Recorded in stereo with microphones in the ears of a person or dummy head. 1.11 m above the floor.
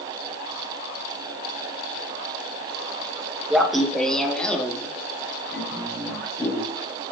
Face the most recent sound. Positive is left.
turn(degrees=15)  # may be behind; listen again after turning